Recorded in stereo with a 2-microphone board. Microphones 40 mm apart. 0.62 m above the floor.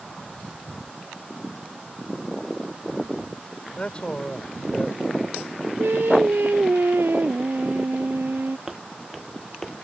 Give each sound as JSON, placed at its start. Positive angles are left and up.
{"t": 3.8, "sound": "a man speaking", "side_deg": 25}
{"t": 5.8, "sound": "singing", "side_deg": -70}
{"t": 8.7, "sound": "footsteps", "side_deg": -10}